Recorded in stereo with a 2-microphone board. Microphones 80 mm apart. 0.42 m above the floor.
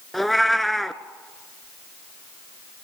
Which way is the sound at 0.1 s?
Centre (ahead or behind).